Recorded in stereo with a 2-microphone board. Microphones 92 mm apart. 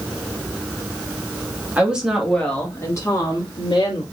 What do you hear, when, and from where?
1.8 s a woman speaking: 15° right (ahead or behind), 1.4 m; by 4.0 s 60° left (ahead or behind), 1.9 m